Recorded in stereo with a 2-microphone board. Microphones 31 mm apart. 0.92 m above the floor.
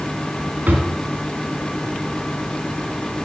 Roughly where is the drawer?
Right.